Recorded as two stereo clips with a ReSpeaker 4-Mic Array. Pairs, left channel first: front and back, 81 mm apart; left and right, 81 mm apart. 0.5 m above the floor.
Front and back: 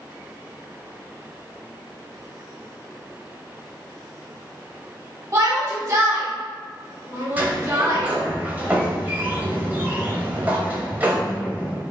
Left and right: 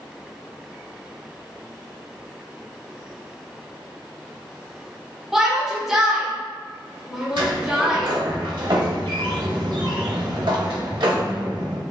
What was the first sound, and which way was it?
A shout, 170° right.